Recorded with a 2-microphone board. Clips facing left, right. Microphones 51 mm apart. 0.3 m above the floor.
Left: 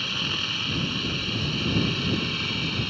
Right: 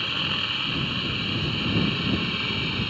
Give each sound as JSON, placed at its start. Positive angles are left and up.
{"t": 0.0, "sound": "a helicopter", "side_deg": -10}